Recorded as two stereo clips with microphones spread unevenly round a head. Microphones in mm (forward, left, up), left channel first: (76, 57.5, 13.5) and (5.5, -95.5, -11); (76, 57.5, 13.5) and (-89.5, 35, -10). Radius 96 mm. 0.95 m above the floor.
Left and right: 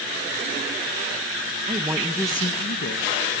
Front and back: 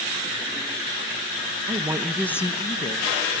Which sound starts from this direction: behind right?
A woman speaking, at 1.7 s.